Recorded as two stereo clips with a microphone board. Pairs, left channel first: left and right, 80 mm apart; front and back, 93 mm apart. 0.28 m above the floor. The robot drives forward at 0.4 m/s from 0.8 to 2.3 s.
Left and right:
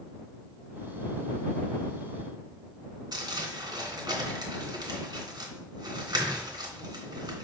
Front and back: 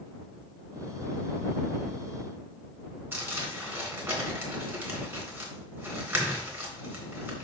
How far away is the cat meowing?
I don't hear a cat meowing.